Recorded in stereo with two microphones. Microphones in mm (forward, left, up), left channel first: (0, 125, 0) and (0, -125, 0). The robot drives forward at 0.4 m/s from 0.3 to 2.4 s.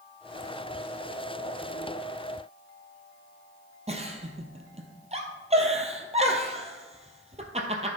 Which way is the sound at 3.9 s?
25° right (ahead or behind).